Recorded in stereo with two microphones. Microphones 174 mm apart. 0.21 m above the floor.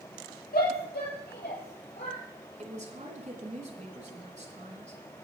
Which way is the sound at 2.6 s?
45° right (ahead or behind).